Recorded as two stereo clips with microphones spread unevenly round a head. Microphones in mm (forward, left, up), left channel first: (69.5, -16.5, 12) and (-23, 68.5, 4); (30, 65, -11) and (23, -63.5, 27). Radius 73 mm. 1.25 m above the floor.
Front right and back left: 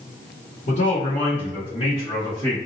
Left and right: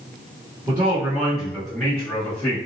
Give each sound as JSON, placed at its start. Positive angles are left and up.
{"t": 0.7, "sound": "a man speaking", "azimuth_deg": -25, "distance_m": 1.2}